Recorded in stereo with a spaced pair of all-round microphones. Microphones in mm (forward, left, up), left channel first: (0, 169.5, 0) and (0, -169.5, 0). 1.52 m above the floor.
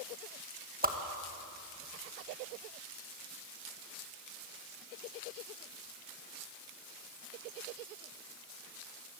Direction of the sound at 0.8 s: 25° right (ahead or behind).